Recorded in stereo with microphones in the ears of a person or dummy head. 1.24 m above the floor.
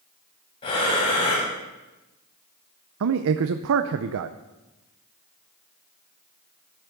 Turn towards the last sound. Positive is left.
turn(degrees=-70)  # may be behind; listen again after turning